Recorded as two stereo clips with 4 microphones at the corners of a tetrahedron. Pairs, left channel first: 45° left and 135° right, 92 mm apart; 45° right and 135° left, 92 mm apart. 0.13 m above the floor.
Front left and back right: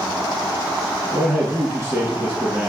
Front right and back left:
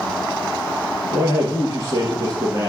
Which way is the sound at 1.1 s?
175° left.